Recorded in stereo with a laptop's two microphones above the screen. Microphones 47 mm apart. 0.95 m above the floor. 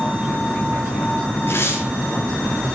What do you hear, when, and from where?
1.5 s tearing paper: 55° left (ahead or behind), 8.5 m